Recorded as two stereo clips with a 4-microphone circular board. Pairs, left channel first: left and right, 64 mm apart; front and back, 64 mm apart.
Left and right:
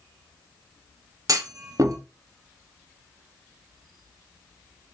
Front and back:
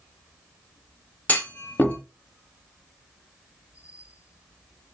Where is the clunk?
65° right, 0.6 m.